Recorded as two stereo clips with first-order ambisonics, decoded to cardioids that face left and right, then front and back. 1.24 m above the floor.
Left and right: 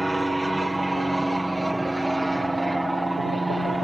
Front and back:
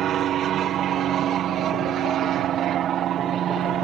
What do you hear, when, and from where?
0.0 s an aircraft: 175° right